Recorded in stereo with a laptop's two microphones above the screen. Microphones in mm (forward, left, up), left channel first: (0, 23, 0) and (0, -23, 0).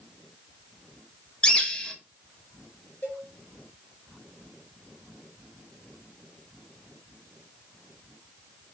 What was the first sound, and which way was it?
A bird, 20° left (ahead or behind).